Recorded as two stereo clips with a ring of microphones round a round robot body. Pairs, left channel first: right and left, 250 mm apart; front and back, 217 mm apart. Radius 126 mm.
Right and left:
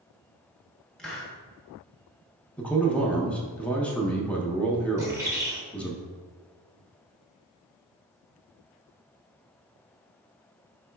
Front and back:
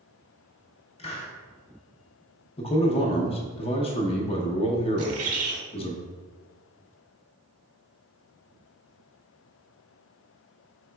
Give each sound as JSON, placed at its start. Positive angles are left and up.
{"t": 1.0, "sound": "a hiss", "azimuth_deg": -5, "distance_m": 0.9}
{"t": 2.6, "sound": "a man speaking", "azimuth_deg": -10, "distance_m": 0.6}
{"t": 5.0, "sound": "a bird", "azimuth_deg": 170, "distance_m": 0.9}